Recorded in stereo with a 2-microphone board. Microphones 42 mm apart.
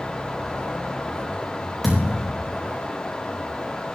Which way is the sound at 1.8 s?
Centre (ahead or behind).